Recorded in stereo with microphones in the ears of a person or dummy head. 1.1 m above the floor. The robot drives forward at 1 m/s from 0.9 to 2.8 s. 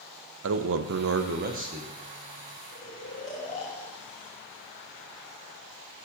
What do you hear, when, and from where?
0.4 s a man speaking: 70° right (ahead or behind), 0.5 m; by 1.9 s 30° right (ahead or behind), 1.1 m
2.7 s snoring: 35° left (ahead or behind), 1.3 m; by 4.4 s 30° left (ahead or behind), 1.3 m